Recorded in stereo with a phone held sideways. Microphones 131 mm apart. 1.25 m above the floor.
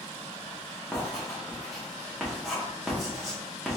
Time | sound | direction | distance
0.9 | writing | centre (ahead or behind) | 1.2 m